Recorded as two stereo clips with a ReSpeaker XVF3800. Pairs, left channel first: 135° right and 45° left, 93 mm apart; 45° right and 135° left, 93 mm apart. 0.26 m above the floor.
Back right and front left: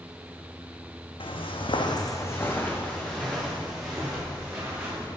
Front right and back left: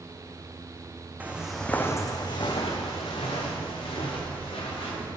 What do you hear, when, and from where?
1.2 s footsteps: 155° right, 0.8 m; by 5.1 s 35° right, 3 m